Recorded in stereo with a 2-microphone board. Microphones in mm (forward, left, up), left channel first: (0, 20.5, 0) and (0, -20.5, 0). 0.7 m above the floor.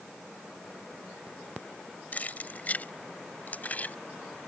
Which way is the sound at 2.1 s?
40° left (ahead or behind).